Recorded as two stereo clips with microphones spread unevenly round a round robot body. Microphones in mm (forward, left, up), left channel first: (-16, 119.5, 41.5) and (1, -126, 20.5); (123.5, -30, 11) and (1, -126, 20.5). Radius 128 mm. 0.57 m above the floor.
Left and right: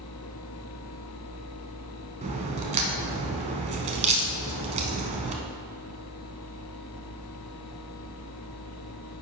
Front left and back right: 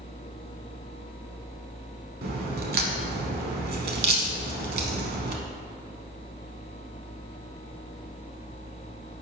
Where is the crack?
150° right, 0.7 m.